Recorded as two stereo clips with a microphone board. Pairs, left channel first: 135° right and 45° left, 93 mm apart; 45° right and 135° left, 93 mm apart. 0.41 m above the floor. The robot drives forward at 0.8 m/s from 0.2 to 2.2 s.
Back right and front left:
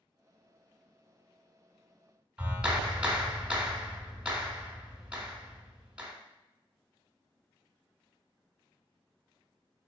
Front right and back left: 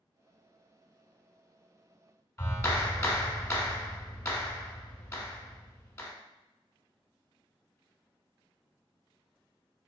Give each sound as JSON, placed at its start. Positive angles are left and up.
{"t": 2.4, "sound": "a clap", "azimuth_deg": -20, "distance_m": 1.2}